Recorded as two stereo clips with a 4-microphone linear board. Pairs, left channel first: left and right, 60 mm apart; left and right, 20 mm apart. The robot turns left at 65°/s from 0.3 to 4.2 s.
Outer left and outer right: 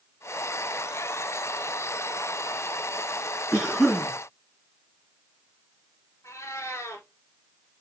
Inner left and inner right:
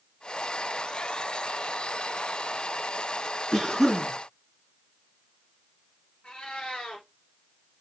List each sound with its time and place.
3.5 s a cough: 170° right, 5 m; by 4.1 s 150° left, 5 m
6.2 s a cat meowing: 60° left (ahead or behind), 1.8 m